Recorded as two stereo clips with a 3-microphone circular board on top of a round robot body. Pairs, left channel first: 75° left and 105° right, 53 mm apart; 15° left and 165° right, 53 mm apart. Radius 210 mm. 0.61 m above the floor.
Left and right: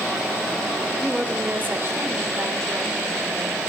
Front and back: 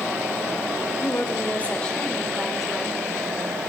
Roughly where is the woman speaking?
Ahead right.